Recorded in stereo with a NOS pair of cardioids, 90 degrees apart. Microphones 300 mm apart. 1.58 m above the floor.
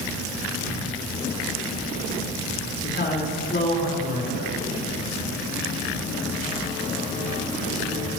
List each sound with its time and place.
2.8 s a man speaking: 40° left, 6 m